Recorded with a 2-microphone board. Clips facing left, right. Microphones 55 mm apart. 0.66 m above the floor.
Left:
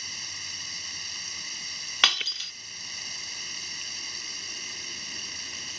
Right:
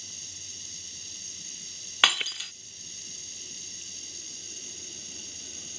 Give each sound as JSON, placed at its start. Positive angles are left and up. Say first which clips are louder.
{"t": 0.0, "sound": "running water", "louder": "left 10 dB", "side_deg": 65}
{"t": 2.0, "sound": "breaking glass", "louder": "right 1 dB", "side_deg": -10}